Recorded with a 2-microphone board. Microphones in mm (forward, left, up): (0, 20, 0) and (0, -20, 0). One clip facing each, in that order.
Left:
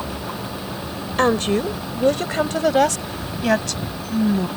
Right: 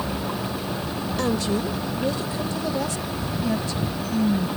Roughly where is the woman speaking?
Left.